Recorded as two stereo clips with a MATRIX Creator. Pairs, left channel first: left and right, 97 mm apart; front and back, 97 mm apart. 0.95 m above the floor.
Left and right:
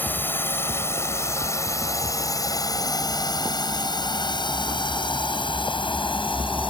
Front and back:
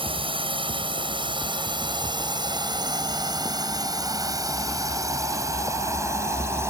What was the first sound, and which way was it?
A drone, 160° left.